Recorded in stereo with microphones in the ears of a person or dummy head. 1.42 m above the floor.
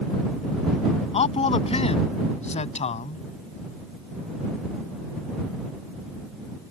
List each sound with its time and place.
1.1 s a man speaking: 35° left (ahead or behind)